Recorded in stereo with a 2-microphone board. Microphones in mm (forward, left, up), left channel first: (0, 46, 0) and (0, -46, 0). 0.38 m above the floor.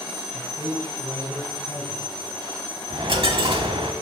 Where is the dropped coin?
70° right (ahead or behind), 0.8 m.